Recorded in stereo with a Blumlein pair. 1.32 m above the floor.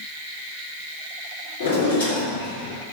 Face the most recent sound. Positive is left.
turn(degrees=65)